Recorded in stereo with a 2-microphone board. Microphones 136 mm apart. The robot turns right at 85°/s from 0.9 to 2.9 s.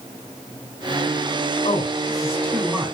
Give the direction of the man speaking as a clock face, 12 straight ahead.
9 o'clock.